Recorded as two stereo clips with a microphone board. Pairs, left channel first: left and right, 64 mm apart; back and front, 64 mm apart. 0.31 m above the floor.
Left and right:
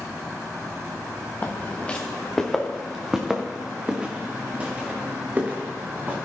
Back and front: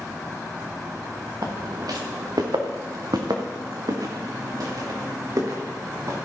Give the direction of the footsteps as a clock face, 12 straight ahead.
11 o'clock.